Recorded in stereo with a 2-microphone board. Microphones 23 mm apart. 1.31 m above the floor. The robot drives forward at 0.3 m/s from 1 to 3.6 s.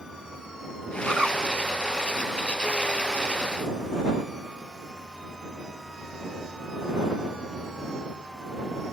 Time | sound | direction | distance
1.1 | a bird | 55° right (ahead or behind) | 4.5 m